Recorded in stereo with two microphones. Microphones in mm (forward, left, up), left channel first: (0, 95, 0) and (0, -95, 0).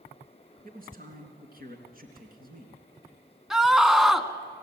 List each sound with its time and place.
0.6 s a man speaking: 50° right (ahead or behind), 3 m
3.5 s a scream: centre (ahead or behind), 1.5 m